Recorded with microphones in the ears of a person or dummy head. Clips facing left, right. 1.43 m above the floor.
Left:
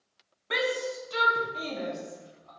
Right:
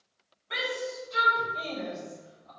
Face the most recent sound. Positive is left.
turn(degrees=55)  # may be behind; listen again after turning